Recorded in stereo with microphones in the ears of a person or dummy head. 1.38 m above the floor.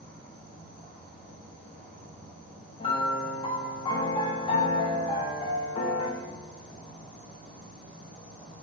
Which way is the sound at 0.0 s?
Centre (ahead or behind).